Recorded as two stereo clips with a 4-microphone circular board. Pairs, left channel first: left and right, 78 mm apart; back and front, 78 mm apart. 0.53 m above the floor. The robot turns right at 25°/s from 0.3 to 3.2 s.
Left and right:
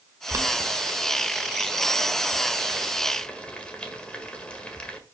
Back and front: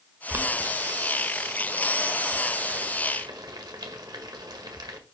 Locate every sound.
0.3 s boiling: 60° right, 1.6 m; by 5.0 s 15° left, 1.6 m